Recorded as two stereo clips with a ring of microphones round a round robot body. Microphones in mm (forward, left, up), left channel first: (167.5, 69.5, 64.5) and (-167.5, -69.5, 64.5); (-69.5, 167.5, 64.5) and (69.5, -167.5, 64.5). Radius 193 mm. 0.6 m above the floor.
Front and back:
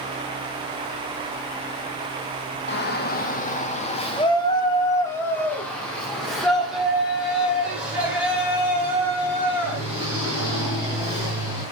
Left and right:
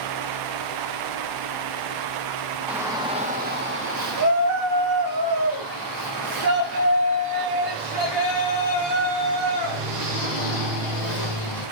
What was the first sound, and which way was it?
A shout, 15° left.